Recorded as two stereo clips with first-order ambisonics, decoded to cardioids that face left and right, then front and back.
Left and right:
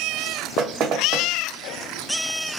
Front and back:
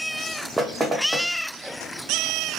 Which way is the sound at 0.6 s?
110° right.